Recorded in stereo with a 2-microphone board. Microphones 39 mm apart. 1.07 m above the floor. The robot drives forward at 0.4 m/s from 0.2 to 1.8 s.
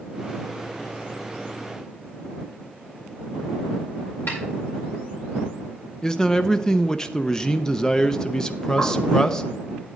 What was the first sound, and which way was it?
A snare drum, 60° left (ahead or behind).